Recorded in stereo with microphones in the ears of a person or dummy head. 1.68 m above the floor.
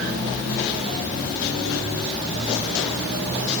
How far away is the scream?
No scream in this recording.